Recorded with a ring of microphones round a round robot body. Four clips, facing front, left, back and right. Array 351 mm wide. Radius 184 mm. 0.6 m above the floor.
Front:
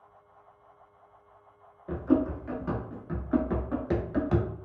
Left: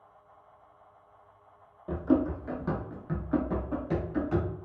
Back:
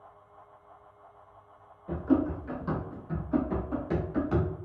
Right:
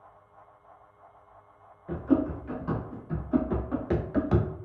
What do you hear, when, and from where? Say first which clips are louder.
1.9 s running footsteps: right 1 dB, front 1 dB; 90° left, 1.1 m; by 4.5 s 65° right, 0.8 m